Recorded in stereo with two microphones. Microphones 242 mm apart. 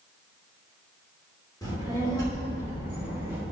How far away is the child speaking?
About 2.5 m.